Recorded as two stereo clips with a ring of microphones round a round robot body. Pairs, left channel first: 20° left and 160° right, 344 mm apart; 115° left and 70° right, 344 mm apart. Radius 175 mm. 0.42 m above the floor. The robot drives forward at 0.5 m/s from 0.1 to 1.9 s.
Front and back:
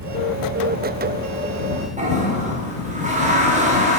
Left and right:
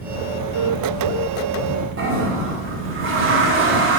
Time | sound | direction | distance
2.0 | a toilet flushing | 100° right | 1.5 m